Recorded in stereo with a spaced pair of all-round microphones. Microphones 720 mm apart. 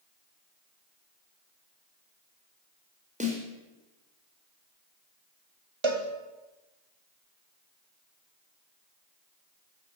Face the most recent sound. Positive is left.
turn(degrees=-40)  # may be behind; listen again after turning